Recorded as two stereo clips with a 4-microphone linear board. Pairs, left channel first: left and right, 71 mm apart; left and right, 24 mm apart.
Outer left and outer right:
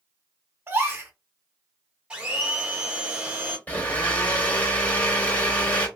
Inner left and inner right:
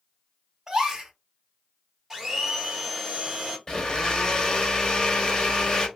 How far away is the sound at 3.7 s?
About 0.9 m.